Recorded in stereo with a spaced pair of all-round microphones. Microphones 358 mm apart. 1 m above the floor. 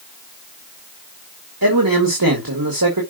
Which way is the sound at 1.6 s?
70° right (ahead or behind).